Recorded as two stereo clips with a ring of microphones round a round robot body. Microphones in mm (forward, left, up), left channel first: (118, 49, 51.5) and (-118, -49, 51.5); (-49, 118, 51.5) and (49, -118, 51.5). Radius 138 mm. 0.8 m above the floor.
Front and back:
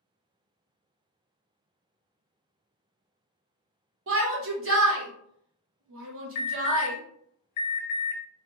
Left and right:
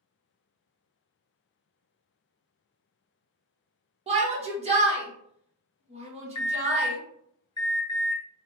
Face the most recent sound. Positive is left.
turn(degrees=40)